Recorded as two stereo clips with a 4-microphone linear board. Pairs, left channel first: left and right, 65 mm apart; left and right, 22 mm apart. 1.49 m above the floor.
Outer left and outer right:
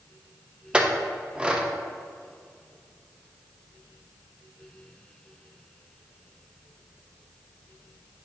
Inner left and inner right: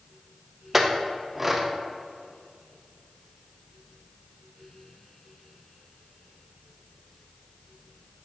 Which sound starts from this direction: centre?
A clink, at 0.7 s.